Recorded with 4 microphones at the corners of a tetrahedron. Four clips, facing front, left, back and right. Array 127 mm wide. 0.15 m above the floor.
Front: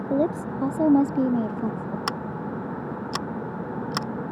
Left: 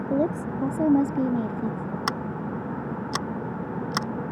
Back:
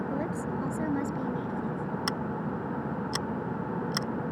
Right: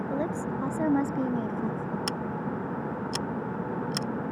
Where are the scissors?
55° left.